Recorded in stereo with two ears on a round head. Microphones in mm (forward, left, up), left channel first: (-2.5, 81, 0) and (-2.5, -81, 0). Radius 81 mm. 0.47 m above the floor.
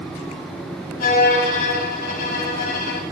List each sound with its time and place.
1.0 s a violin: 55° left (ahead or behind), 1.4 m